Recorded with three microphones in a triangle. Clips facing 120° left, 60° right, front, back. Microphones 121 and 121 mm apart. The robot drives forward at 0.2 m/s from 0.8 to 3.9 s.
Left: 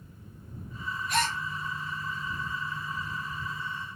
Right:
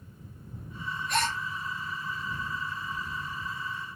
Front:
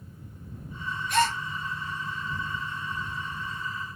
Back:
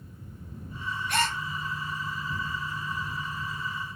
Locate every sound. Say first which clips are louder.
1.1 s a gasp: even, front 5 dB; 155° right, 1.1 m